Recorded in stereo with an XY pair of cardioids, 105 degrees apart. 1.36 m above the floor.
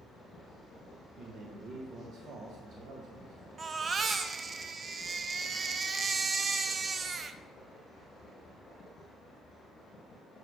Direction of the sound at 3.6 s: 40° right.